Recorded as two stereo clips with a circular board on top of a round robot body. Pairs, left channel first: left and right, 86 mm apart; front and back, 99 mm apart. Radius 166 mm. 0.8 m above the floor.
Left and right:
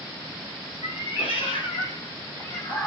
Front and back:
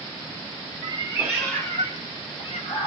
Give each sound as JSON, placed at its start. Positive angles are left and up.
{"t": 0.8, "sound": "a cat meowing", "azimuth_deg": 130, "distance_m": 0.8}